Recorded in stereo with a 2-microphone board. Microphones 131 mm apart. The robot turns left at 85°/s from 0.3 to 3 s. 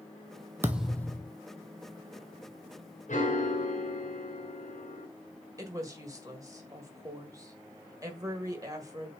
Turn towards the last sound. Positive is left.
turn(degrees=-25)  # may be behind; listen again after turning